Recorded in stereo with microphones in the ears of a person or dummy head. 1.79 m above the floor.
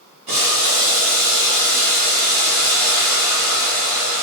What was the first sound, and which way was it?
Boiling, 35° right (ahead or behind).